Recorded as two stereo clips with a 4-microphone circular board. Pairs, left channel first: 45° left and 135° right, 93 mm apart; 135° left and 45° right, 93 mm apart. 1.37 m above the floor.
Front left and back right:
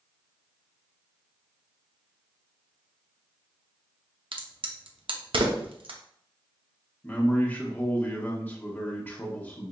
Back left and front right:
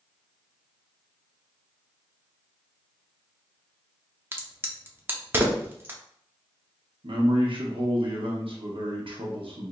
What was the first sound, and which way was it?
A crack, 110° right.